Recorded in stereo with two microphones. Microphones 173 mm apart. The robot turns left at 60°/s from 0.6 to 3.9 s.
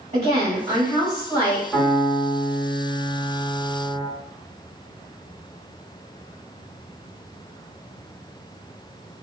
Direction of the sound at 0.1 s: 125° right.